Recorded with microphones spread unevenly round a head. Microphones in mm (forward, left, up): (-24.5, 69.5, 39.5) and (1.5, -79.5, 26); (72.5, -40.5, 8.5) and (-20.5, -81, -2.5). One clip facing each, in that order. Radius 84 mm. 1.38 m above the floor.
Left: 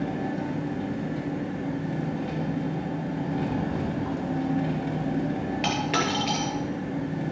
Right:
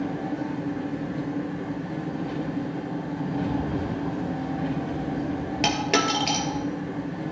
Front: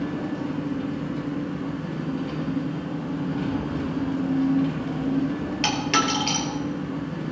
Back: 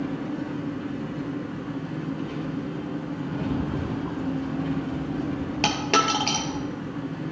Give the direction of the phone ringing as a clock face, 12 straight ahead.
I don't hear a phone ringing.